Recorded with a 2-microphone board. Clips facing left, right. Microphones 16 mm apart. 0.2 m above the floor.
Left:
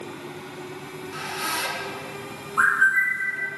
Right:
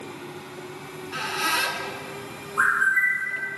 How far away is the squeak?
About 0.6 m.